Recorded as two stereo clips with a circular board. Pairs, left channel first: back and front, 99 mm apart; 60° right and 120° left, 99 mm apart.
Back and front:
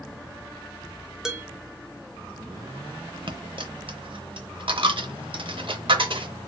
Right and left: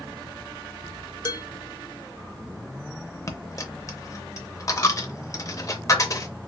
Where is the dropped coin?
10° right, 0.6 m.